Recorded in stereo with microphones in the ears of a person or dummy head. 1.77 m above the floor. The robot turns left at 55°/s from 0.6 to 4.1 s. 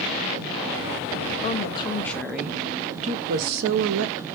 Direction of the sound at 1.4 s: 50° left.